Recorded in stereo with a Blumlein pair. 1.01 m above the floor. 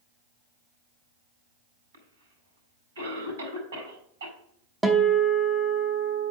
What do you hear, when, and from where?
1.9 s a cough: 65° right, 4.5 m
4.8 s a guitar: 10° right, 1.0 m